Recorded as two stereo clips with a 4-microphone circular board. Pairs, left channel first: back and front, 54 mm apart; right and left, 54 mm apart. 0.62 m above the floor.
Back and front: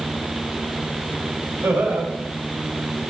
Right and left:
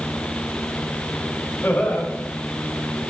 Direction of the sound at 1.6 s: 40° right.